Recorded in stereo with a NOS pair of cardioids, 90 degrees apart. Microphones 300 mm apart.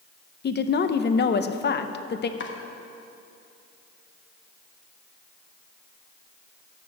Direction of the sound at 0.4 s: 35° left.